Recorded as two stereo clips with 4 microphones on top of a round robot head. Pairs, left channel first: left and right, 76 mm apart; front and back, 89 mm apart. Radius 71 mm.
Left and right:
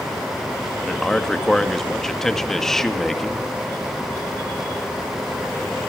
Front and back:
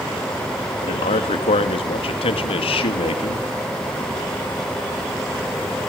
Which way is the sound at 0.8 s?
5° left.